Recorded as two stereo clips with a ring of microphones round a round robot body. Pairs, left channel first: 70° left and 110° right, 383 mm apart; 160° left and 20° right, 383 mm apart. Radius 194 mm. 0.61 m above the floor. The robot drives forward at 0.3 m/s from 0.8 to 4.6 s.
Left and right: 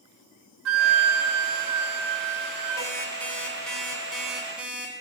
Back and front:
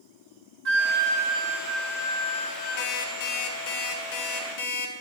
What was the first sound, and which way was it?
A flute, 70° right.